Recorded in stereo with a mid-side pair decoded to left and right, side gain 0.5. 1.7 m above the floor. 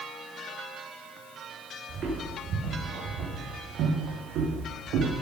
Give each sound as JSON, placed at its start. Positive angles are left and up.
{"t": 1.9, "sound": "footsteps", "azimuth_deg": -50, "distance_m": 6.5}